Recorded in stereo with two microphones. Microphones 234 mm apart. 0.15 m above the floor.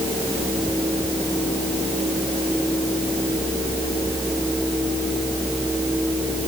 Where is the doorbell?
No doorbell in this recording.